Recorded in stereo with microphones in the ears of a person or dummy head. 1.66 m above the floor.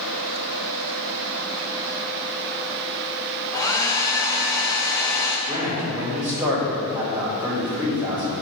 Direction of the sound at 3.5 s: 20° left (ahead or behind).